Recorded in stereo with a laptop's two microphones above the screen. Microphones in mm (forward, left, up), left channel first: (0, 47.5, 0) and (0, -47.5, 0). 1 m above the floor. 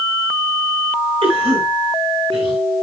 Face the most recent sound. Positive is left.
turn(degrees=-80)